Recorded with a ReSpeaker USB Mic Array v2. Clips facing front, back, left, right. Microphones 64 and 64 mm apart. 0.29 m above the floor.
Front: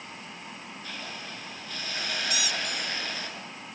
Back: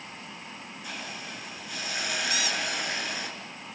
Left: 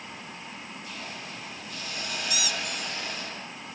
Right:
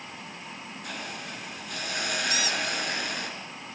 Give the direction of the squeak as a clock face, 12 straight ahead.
5 o'clock.